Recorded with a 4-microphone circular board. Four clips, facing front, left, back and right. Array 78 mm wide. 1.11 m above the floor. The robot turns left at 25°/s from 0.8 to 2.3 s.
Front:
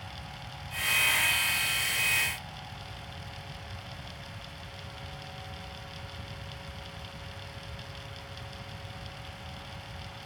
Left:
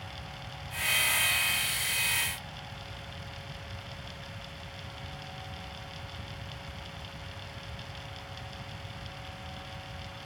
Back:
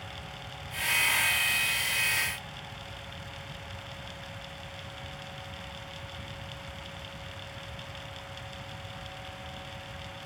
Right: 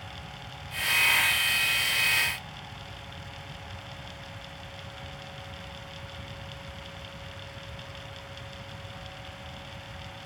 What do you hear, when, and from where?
Only background noise.